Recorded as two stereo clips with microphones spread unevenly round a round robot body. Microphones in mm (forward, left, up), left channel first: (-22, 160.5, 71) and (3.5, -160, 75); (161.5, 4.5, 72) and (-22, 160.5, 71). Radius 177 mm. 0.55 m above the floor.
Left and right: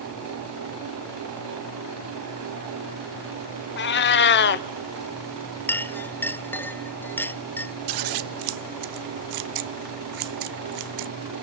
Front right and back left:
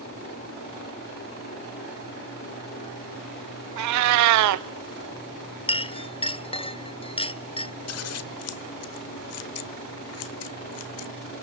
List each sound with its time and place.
3.8 s a cat meowing: 155° left, 0.7 m
5.7 s a clink: 15° left, 0.7 m
7.9 s scissors: 70° right, 1.1 m